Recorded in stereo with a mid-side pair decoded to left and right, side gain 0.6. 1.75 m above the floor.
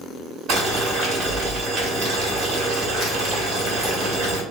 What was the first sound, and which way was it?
Boiling, 65° right.